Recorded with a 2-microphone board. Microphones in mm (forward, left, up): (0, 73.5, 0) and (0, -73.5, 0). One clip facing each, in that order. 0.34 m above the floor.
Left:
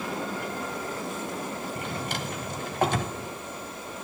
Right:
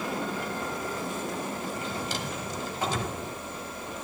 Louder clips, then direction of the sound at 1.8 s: Even; 60° left (ahead or behind).